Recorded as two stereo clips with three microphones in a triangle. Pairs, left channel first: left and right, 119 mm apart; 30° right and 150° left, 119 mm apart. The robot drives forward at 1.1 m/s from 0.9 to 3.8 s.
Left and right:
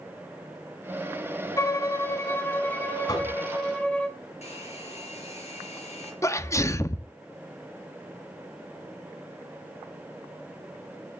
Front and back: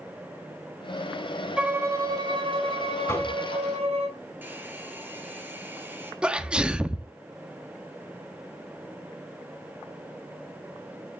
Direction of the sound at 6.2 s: 80° left.